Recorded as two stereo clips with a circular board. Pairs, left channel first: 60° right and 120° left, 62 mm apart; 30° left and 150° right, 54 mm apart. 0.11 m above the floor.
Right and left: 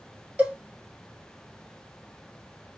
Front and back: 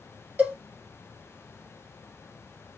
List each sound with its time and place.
0.4 s a cowbell: 170° left, 1.6 m